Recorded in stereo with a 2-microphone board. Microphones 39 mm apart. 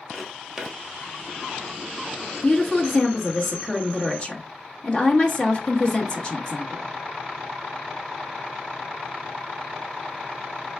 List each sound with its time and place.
0.1 s footsteps: 10° right (ahead or behind), 1.2 m
2.4 s a woman speaking: 30° left (ahead or behind), 1.0 m